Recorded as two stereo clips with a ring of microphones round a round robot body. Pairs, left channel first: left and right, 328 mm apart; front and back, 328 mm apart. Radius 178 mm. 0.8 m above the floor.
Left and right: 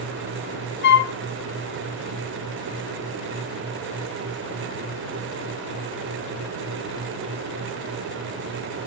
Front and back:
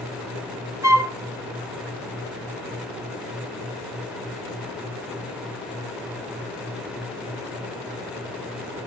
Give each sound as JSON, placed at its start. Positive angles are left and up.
{"t": 0.8, "sound": "a flute", "azimuth_deg": 105, "distance_m": 1.2}